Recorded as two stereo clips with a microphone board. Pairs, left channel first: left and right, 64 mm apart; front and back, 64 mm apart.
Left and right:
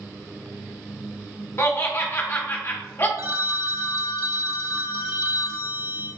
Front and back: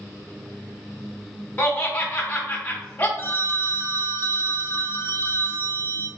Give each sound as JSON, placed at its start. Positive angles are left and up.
{"t": 1.6, "sound": "laughter", "azimuth_deg": 60, "distance_m": 1.0}
{"t": 3.2, "sound": "a phone ringing", "azimuth_deg": -55, "distance_m": 0.6}